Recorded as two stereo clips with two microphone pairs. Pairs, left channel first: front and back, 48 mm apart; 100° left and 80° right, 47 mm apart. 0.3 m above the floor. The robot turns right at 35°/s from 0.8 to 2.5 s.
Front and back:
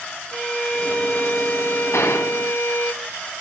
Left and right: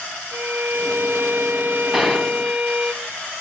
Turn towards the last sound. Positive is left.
turn(degrees=30)